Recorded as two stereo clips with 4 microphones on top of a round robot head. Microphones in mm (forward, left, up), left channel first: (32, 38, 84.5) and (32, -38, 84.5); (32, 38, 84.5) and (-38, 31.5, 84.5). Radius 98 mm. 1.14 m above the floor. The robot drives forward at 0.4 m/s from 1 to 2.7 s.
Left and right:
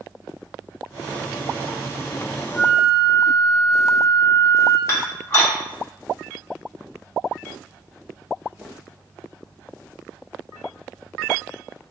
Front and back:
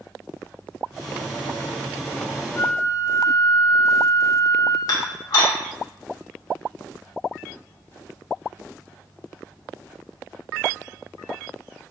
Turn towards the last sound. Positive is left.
turn(degrees=35)